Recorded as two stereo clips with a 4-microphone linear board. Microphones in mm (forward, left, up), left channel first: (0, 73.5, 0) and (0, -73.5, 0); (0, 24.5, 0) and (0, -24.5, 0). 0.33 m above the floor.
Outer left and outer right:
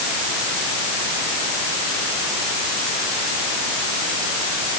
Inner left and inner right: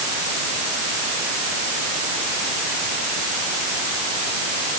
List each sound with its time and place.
Only background noise.